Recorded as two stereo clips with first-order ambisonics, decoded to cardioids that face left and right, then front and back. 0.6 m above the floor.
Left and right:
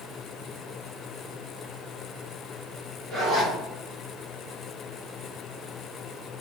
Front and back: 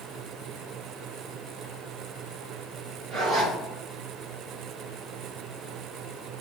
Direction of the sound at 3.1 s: 145° right.